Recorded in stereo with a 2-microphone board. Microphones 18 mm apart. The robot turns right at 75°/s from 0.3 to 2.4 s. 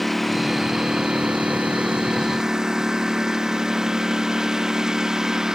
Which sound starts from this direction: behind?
A lawn mower, at 0.0 s.